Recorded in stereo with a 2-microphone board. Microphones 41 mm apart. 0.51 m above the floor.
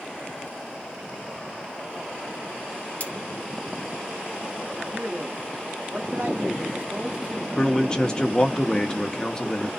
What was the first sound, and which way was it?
Cutlery clinking, 40° left (ahead or behind).